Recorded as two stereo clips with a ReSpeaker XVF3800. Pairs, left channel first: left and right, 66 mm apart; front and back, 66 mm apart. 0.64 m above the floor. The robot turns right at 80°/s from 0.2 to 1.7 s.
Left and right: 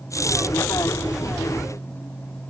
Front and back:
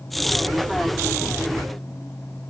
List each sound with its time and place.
Only background noise.